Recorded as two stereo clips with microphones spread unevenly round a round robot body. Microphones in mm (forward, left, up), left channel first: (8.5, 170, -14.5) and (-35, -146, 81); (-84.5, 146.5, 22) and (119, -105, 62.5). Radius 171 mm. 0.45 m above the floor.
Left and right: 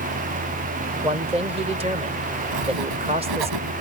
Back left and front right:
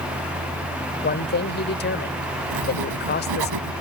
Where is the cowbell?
I don't hear a cowbell.